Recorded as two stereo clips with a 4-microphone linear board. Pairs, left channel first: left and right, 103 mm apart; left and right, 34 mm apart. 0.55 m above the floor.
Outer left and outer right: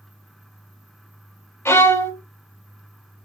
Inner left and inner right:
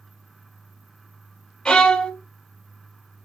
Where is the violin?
25° left (ahead or behind), 0.6 m.